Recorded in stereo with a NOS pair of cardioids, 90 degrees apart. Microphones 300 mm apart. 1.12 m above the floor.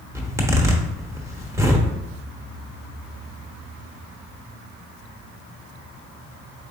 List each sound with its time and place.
0.1 s a zipper: 10° right, 0.9 m